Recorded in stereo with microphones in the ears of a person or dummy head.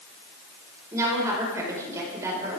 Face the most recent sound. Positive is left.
turn(degrees=-20)  # may be behind; listen again after turning